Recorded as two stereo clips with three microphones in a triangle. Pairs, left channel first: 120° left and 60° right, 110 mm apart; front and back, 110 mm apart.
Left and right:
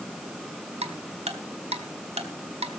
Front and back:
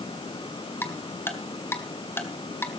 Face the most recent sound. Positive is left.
turn(degrees=-70)